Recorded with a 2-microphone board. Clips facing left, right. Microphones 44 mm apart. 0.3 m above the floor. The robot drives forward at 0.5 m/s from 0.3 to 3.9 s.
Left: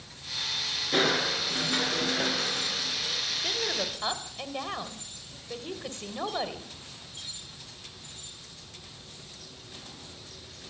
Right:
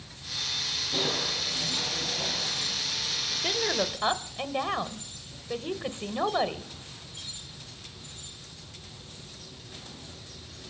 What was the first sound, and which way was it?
Crushing, 75° left (ahead or behind).